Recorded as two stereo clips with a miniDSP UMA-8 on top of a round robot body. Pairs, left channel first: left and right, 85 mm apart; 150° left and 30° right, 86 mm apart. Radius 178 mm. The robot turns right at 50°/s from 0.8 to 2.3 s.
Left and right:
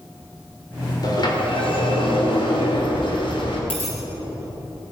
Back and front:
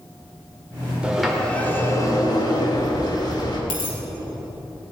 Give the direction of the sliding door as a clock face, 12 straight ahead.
10 o'clock.